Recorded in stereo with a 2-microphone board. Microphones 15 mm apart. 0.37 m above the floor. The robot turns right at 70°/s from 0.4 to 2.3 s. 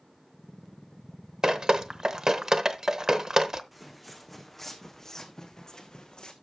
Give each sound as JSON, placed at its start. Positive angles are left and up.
{"t": 1.4, "sound": "dripping", "side_deg": -35, "distance_m": 0.8}
{"t": 3.7, "sound": "footsteps", "side_deg": -5, "distance_m": 1.5}